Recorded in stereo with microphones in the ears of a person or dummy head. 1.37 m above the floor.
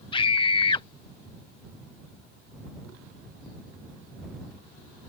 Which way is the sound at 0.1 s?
25° left (ahead or behind).